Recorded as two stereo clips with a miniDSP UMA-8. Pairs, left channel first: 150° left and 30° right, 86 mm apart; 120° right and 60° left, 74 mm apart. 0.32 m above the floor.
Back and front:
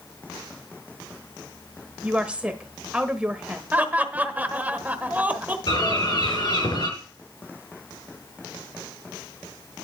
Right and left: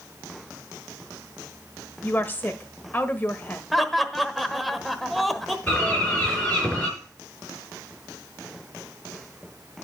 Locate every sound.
2.0 s a woman speaking: 90° right, 1.0 m
3.7 s laughter: 30° right, 1.0 m
5.7 s a bird: 165° left, 4.5 m